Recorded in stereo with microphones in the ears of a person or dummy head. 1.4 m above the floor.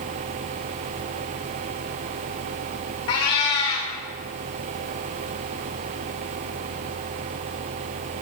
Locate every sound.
3.1 s a cat meowing: 30° left (ahead or behind), 1.1 m